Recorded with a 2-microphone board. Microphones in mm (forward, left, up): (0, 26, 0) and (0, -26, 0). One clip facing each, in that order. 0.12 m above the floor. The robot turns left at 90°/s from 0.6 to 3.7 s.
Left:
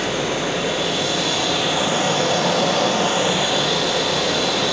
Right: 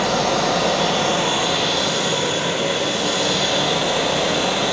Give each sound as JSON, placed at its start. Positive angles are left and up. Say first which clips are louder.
{"t": 0.0, "sound": "running water", "louder": "right 3 dB", "azimuth_deg": -95, "distance_m": 4.0}